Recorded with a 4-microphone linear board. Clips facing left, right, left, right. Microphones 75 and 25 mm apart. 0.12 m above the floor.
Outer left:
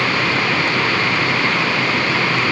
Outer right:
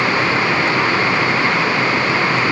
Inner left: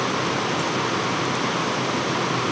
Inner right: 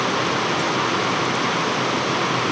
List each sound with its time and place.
Only background noise.